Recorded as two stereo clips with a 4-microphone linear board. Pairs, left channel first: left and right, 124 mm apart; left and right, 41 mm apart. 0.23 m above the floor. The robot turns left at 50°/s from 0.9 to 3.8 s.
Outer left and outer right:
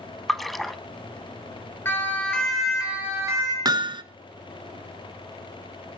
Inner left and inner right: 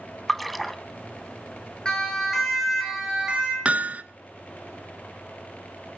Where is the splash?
Centre (ahead or behind), 0.8 m.